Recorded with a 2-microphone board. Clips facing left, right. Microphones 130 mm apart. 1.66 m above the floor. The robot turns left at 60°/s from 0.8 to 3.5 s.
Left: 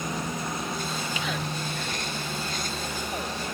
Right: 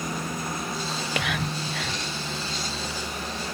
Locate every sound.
0.9 s whispering: 45° right (ahead or behind); by 2.0 s 65° right (ahead or behind)